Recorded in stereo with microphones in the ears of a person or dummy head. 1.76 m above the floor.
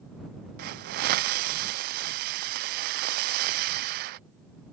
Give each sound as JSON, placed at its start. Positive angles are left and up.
{"t": 0.6, "sound": "a hiss", "side_deg": -45}